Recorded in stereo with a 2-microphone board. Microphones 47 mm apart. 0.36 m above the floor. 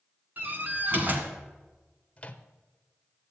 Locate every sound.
0.4 s a door slam: 40° right (ahead or behind), 1.9 m
2.2 s a microwave: 25° left (ahead or behind), 0.7 m